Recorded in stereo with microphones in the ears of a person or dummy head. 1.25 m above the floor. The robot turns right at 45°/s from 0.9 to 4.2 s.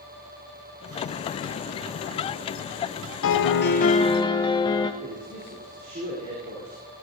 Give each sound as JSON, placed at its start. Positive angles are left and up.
{"t": 3.2, "sound": "a piano", "azimuth_deg": 115, "distance_m": 0.8}
{"t": 5.0, "sound": "a man speaking", "side_deg": -40, "distance_m": 3.5}